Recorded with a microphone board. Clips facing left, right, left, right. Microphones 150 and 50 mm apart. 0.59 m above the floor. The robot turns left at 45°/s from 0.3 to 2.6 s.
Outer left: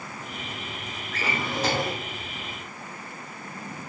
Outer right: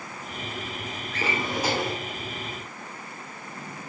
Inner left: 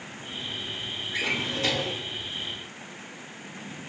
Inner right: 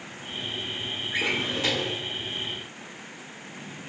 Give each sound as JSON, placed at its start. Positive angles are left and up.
{"t": 1.1, "sound": "a drawer", "azimuth_deg": -145, "distance_m": 1.0}